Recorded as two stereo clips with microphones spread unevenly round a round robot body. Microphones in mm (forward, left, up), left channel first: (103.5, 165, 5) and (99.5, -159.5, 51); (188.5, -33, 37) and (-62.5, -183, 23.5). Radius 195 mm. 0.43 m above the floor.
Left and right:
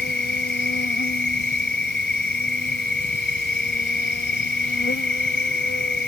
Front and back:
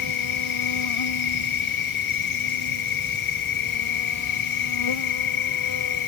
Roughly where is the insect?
Ahead left.